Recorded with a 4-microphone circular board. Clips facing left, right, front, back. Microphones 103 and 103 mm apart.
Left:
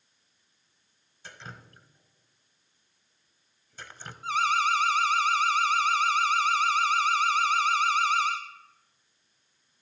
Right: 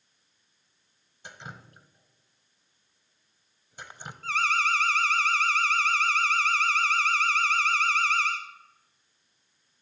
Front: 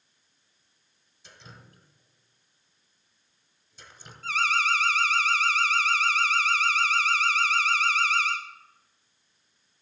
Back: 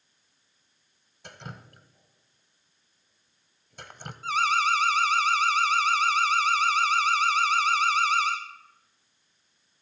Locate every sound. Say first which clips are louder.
1.2 s dripping: right 1 dB, back 7 dB; 160° right, 0.9 m
4.2 s an alarm: left 2 dB, back 2 dB; 135° left, 1.6 m